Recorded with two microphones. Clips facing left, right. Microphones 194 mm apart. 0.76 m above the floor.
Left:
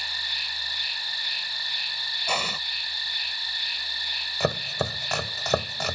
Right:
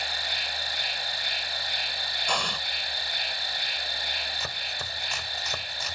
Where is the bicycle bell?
I don't hear a bicycle bell.